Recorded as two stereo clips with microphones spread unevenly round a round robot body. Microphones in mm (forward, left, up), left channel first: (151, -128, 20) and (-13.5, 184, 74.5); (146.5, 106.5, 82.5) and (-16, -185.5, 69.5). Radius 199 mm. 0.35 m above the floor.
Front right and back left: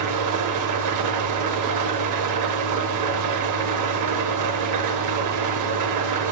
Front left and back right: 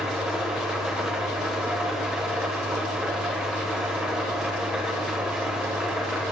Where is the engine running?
155° left, 1.0 m.